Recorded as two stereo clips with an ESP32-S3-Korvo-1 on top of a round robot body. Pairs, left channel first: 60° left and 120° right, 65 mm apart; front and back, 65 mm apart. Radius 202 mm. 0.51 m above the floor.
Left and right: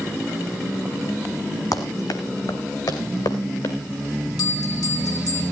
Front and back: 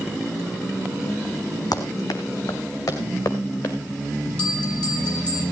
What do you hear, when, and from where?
1.7 s running footsteps: 30° left, 1.7 m; by 3.8 s 55° left, 3 m
4.4 s a bell: 70° left, 6 m